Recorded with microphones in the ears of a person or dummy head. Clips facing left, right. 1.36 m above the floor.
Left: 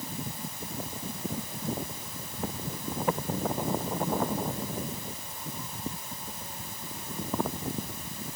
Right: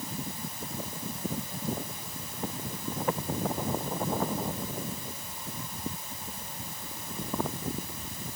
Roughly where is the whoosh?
No whoosh in this recording.